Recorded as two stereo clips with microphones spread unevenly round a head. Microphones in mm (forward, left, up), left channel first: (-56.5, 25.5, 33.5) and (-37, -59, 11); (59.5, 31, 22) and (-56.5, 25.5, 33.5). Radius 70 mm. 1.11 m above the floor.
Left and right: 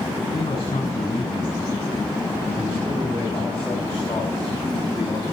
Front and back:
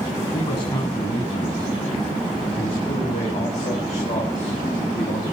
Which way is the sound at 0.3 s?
50° left.